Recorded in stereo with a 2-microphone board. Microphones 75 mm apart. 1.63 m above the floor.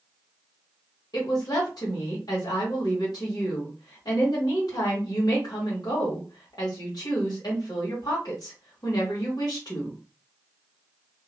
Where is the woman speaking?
65° left (ahead or behind), 1.7 m.